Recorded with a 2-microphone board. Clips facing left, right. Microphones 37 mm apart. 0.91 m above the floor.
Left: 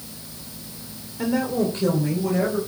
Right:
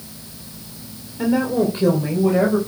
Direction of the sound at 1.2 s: 10° right (ahead or behind).